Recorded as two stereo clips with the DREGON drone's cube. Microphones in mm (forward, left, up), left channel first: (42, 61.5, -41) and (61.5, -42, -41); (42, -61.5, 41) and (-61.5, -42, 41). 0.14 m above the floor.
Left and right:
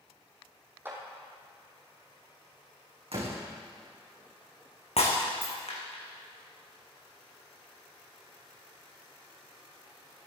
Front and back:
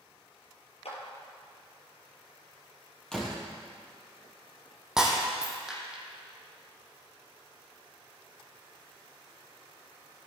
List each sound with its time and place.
0.8 s a clap: 10° right, 4 m
3.1 s a door slam: 95° right, 4.5 m
5.0 s breaking glass: 85° left, 3 m